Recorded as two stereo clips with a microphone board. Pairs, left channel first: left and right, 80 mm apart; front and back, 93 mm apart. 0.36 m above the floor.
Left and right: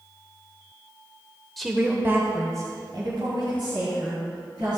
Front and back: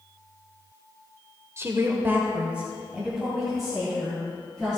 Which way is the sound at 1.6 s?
175° left.